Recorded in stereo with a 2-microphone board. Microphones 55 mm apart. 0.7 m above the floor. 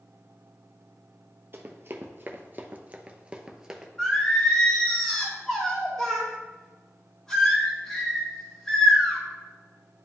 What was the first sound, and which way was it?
Running footsteps, 45° right (ahead or behind).